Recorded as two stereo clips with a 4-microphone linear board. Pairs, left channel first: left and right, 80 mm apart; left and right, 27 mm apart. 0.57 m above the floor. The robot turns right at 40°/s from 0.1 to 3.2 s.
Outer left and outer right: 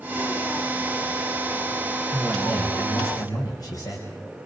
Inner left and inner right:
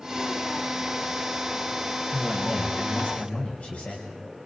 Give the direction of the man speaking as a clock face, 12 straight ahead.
12 o'clock.